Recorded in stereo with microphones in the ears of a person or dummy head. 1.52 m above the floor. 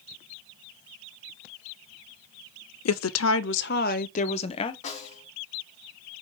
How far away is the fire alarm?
I don't hear a fire alarm.